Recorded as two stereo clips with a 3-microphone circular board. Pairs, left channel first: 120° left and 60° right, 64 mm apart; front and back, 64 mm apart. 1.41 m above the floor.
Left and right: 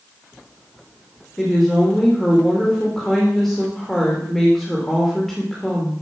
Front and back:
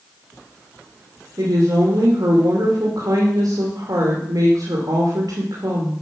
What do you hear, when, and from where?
1.4 s a woman speaking: 155° right, 2.5 m